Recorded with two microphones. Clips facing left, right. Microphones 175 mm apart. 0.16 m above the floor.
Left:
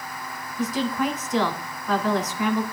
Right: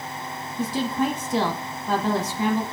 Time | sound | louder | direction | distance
0.6 | a woman speaking | even | 30° right (ahead or behind) | 2.0 m